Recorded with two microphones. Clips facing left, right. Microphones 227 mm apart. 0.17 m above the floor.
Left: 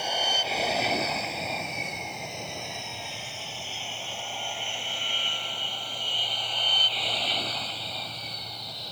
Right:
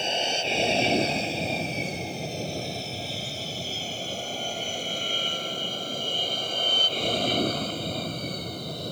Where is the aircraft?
25° right (ahead or behind); by 8.9 s 50° right (ahead or behind).